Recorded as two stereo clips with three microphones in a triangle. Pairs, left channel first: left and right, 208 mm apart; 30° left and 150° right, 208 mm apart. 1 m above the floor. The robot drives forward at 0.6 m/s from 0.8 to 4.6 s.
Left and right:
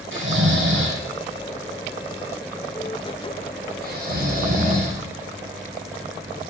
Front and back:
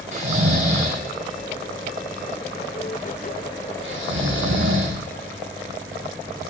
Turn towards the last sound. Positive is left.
turn(degrees=-135)